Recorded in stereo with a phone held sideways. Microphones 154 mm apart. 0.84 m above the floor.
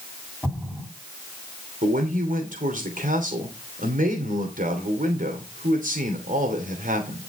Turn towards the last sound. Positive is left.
turn(degrees=-65)  # may be behind; listen again after turning